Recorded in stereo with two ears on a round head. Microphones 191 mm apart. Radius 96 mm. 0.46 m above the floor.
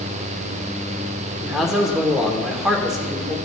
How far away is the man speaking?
About 0.9 m.